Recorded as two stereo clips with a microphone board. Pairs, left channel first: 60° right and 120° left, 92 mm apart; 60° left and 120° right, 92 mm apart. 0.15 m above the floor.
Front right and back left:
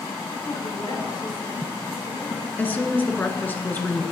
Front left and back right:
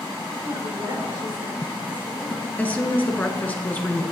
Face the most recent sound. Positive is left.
turn(degrees=0)